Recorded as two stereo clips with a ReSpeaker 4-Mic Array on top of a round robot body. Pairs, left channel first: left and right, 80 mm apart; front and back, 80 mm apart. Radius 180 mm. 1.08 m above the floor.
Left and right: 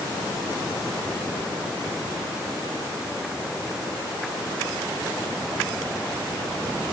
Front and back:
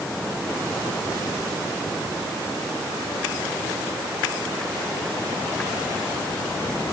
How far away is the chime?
No chime in this recording.